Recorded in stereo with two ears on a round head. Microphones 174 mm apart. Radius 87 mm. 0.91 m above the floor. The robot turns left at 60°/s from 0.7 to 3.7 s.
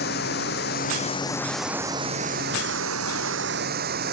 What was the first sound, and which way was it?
Running water, 55° left.